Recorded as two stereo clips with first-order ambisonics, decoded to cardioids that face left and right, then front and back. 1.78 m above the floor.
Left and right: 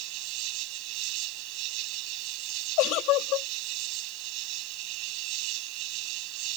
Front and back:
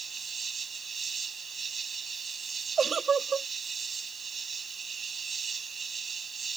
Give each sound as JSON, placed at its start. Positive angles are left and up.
{"t": 0.0, "sound": "an insect", "azimuth_deg": -110}
{"t": 2.8, "sound": "a giggle", "azimuth_deg": 110}